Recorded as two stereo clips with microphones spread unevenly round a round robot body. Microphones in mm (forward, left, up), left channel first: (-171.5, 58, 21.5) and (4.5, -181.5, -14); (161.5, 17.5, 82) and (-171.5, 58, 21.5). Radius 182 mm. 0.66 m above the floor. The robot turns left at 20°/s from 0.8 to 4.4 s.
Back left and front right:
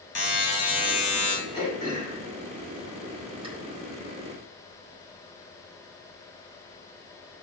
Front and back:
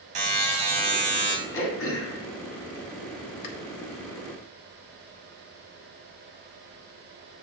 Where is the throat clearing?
50° left, 1.3 m; by 3.5 s 10° left, 1.3 m.